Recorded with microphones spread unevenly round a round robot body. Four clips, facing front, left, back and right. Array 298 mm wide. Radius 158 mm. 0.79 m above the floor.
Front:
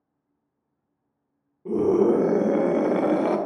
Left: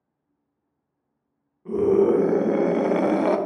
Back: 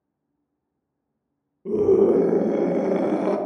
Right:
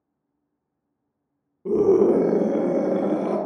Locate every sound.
1.6 s a scream: 100° right, 0.9 m; by 3.4 s 60° left, 1.0 m